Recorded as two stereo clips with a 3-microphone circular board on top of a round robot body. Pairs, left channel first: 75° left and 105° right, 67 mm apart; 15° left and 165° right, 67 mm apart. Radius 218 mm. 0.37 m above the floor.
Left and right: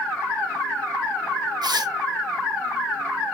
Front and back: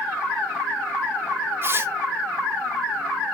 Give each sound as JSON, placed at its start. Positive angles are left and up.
{"t": 1.6, "sound": "tearing paper", "azimuth_deg": -110, "distance_m": 1.7}